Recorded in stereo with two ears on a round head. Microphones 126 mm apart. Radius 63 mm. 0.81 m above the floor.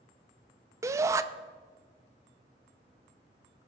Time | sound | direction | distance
0.8 | a shout | 20° right (ahead or behind) | 0.6 m